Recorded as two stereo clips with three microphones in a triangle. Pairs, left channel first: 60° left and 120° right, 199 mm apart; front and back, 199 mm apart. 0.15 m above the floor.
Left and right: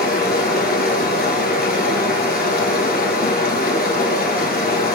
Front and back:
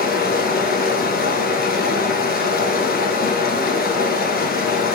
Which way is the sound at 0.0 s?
30° left.